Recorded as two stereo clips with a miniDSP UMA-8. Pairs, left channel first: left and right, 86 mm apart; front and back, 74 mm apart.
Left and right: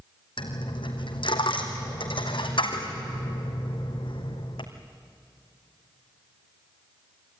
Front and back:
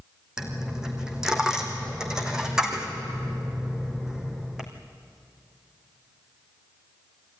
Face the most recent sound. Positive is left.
turn(degrees=95)